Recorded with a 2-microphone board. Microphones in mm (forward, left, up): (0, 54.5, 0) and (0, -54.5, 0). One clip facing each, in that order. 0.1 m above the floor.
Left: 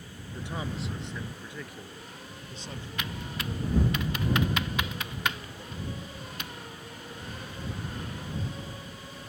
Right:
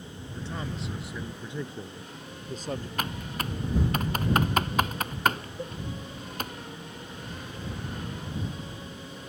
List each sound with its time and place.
0.3 s a man speaking: 20° left (ahead or behind); by 2.9 s 50° right (ahead or behind)
3.0 s typing on a keyboard: 45° right (ahead or behind)
5.6 s a cowbell: 50° right (ahead or behind)